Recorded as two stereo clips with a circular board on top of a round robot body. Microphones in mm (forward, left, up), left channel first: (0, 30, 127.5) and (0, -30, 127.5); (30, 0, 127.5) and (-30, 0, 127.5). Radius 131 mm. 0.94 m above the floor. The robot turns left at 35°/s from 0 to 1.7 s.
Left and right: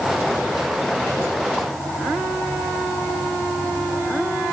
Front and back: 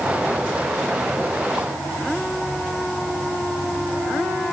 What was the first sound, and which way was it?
Only background noise.